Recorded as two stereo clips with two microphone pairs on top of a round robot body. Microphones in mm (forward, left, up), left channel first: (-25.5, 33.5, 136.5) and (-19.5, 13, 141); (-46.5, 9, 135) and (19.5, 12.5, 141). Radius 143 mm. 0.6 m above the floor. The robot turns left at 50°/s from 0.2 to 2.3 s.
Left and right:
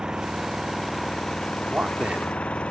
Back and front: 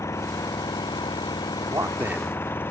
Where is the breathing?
No breathing in this recording.